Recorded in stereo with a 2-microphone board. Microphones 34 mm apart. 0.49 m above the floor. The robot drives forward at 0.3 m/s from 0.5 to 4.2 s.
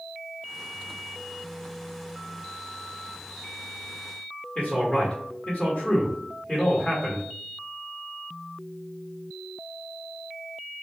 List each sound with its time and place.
4.5 s a man speaking: 35° left (ahead or behind), 1.5 m